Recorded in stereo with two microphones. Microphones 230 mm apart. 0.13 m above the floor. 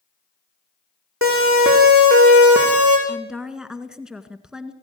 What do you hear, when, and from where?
1.2 s a siren: 65° right (ahead or behind), 8 m; by 3.0 s 80° right, 7.5 m
3.1 s a woman speaking: 5° right (ahead or behind), 1.8 m